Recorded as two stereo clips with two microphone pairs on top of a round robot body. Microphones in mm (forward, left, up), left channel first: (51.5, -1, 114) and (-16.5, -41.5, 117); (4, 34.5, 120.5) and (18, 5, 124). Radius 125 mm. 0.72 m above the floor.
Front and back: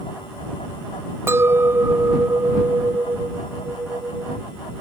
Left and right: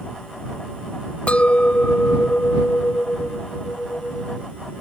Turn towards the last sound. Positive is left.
turn(degrees=155)